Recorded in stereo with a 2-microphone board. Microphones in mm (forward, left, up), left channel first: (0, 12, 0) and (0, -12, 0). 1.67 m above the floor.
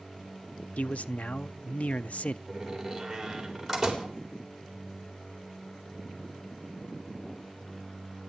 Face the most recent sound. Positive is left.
turn(degrees=-10)  # may be behind; listen again after turning